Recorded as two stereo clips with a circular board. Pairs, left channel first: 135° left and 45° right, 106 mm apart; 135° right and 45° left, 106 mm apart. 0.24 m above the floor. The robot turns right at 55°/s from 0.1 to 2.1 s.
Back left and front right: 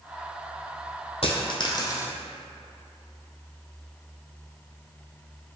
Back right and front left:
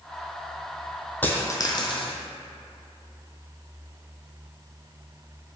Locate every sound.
1.2 s a dropped coin: 150° left, 0.5 m; by 2.1 s 160° right, 0.5 m